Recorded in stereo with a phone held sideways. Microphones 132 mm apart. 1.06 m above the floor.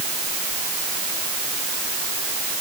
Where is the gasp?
No gasp in this recording.